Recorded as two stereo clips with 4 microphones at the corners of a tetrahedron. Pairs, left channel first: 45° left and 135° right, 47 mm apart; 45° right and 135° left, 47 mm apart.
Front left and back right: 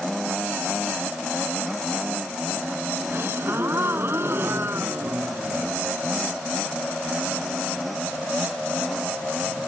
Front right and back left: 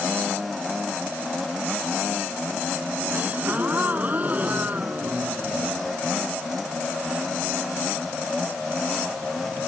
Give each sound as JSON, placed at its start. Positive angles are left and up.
{"t": 3.1, "sound": "a gasp", "azimuth_deg": -170}